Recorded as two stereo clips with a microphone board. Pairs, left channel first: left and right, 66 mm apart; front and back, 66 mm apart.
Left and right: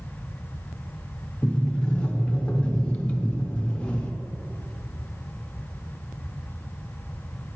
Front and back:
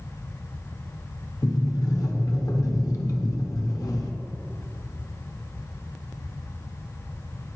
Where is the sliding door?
15° left, 0.8 m.